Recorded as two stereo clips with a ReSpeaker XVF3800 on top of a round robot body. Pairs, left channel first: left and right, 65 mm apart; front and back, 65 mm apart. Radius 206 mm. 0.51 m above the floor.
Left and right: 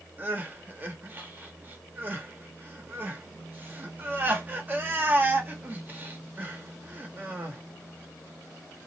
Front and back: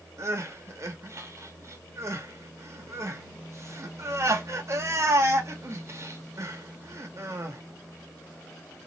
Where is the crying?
145° right, 1.1 m.